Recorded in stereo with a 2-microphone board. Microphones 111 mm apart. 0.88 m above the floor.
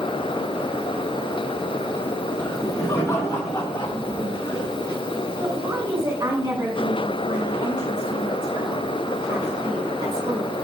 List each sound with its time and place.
2.4 s laughter: 30° left (ahead or behind), 1.2 m; by 4.9 s 35° left (ahead or behind), 3 m
5.4 s a woman speaking: 45° right (ahead or behind), 3 m